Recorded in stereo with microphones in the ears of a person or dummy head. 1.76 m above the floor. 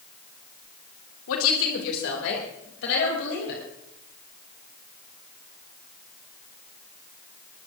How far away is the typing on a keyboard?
I don't hear typing on a keyboard.